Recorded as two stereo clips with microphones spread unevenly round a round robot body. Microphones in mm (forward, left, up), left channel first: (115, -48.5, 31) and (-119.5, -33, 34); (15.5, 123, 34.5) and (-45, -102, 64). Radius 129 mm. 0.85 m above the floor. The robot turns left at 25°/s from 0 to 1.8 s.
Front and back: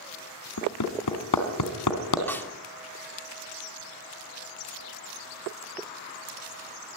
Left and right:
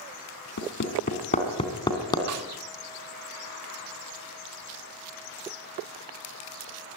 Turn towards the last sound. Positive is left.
turn(degrees=-85)